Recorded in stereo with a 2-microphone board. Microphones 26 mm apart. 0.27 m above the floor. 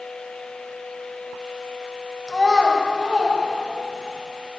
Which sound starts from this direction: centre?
A child speaking, at 2.3 s.